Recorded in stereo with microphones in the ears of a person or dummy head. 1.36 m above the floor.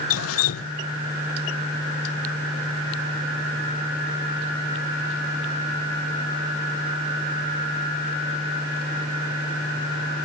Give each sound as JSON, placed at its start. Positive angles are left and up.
{"t": 0.1, "sound": "dripping", "side_deg": 80}